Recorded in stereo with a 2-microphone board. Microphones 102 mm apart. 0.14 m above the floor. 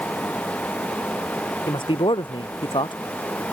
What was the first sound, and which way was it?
A man speaking, 55° left (ahead or behind).